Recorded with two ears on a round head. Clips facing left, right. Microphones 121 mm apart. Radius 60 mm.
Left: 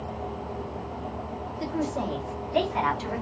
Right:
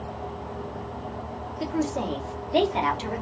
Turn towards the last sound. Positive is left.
turn(degrees=-25)  # may be behind; listen again after turning